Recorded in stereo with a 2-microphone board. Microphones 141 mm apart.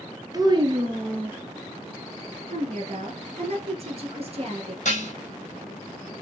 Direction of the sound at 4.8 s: 55° left (ahead or behind).